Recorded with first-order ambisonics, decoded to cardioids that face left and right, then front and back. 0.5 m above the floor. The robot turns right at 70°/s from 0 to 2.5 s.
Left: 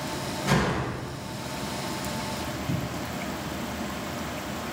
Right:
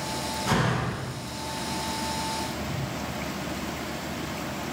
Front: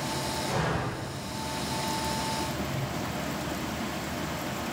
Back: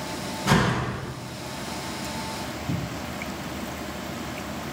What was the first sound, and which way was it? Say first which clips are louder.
A door slam: left 1 dB, back 11 dB; 175° right.